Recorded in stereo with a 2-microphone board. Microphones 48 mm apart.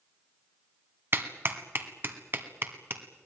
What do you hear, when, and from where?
1.1 s a clap: 45° right (ahead or behind), 1.8 m